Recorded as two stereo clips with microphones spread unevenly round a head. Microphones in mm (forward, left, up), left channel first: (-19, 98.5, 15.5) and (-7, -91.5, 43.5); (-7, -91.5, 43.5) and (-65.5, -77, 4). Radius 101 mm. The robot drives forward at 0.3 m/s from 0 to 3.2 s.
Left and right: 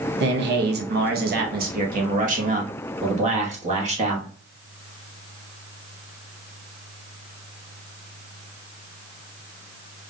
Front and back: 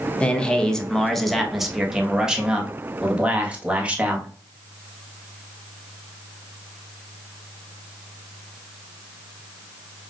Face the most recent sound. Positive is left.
turn(degrees=-140)